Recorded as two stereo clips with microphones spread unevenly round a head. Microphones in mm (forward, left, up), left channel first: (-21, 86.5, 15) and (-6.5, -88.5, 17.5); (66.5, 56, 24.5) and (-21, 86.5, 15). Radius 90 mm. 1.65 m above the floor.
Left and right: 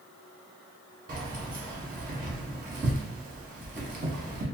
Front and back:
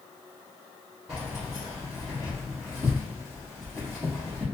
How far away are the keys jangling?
About 0.7 m.